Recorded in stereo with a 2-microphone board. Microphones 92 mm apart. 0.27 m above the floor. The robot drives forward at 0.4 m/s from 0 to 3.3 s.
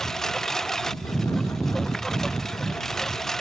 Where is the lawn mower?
5° left (ahead or behind).